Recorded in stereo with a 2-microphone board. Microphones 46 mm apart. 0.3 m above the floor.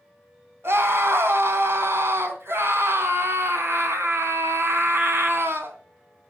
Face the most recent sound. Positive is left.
turn(degrees=-65)  # may be behind; listen again after turning